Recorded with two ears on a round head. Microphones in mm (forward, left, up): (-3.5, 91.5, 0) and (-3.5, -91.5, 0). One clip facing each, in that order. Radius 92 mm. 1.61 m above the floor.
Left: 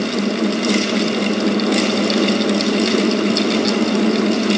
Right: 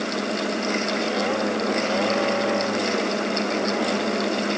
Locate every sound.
Only background noise.